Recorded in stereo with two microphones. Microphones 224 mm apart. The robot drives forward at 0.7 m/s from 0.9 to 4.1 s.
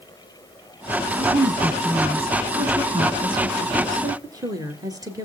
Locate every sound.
1.2 s a woman speaking: 25° right (ahead or behind), 1.2 m; by 5.3 s 15° right (ahead or behind), 1.9 m